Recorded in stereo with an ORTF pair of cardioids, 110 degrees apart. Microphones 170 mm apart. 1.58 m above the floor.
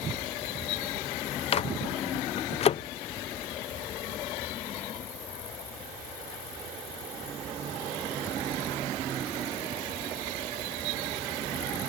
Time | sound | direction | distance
1.5 | a microwave | 35° left | ?